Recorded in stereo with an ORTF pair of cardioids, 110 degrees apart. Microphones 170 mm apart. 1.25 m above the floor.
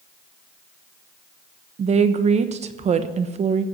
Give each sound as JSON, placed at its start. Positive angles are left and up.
{"t": 1.8, "sound": "a woman speaking", "azimuth_deg": -40, "distance_m": 1.0}